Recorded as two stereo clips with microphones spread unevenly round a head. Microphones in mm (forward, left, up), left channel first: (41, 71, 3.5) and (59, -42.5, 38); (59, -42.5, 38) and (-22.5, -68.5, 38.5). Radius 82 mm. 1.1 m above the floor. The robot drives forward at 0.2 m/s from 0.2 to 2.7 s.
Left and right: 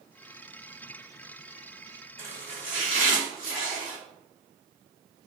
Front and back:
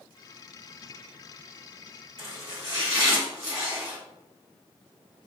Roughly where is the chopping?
Behind.